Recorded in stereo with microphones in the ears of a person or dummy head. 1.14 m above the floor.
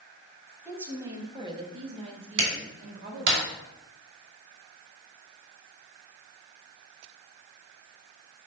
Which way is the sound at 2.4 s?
60° right (ahead or behind).